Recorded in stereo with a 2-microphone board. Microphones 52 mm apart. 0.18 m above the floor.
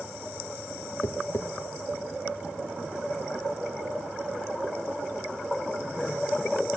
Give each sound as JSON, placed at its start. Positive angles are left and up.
{"t": 1.0, "sound": "tapping", "side_deg": 65, "distance_m": 1.0}